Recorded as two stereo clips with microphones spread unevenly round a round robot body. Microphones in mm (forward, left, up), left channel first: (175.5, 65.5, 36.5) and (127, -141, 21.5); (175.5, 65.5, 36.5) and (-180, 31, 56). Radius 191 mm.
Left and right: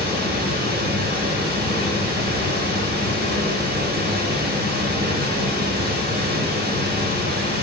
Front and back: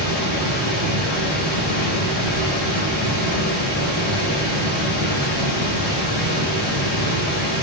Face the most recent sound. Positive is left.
turn(degrees=-60)